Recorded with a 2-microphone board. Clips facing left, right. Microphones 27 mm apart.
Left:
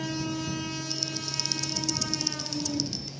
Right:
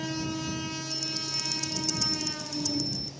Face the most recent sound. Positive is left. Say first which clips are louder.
# even
turn(degrees=65)  # may be behind; listen again after turning